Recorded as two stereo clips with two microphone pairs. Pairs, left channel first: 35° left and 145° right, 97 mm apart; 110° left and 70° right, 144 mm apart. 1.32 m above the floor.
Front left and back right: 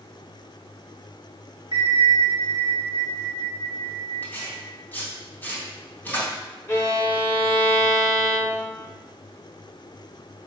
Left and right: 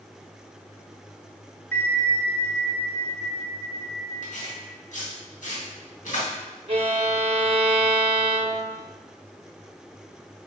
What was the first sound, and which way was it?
A bell, 175° right.